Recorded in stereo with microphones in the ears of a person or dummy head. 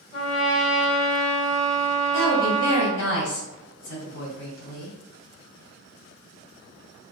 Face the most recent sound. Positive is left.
turn(degrees=65)  # may be behind; listen again after turning